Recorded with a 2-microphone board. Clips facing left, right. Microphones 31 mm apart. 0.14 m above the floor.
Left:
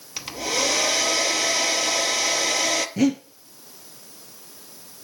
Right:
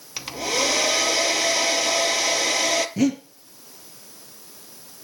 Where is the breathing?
5° left (ahead or behind), 1.7 m.